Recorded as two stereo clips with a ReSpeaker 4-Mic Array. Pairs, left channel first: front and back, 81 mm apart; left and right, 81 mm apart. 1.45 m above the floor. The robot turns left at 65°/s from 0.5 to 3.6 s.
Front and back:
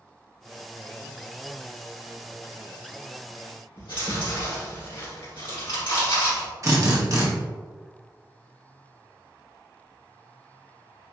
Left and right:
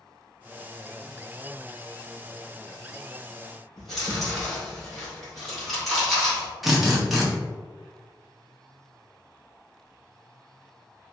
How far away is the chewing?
About 1.8 m.